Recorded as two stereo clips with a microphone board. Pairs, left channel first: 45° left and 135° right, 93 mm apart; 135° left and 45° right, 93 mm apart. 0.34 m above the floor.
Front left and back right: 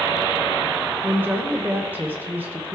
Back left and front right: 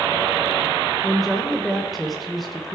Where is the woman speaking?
135° right, 0.8 m.